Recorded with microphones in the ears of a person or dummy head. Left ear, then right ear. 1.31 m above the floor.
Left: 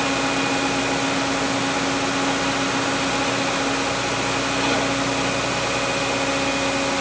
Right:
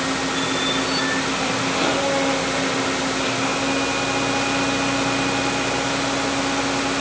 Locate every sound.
Only background noise.